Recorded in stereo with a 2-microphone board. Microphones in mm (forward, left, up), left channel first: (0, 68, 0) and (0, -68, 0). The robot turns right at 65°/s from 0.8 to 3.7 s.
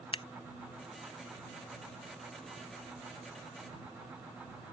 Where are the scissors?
45° left (ahead or behind).